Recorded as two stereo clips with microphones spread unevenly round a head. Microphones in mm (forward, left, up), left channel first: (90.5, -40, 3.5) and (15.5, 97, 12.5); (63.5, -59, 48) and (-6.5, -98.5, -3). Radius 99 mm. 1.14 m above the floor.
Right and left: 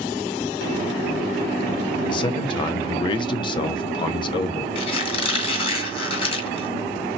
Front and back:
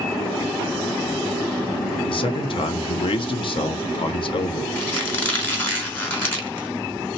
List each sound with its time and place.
2.1 s a man speaking: 5° right, 0.6 m
4.8 s a squeak: 10° right, 1.6 m